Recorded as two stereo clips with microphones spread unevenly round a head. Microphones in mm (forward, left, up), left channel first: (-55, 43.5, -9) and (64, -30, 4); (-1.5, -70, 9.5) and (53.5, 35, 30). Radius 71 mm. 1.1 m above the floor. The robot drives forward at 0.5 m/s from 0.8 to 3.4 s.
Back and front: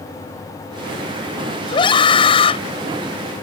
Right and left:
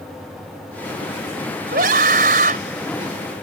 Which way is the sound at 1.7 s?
90° left.